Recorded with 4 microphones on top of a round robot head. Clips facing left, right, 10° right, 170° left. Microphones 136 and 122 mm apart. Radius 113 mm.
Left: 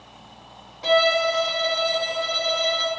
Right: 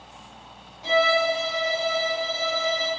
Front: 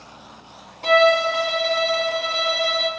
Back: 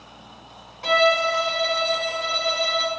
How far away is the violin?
About 1.6 m.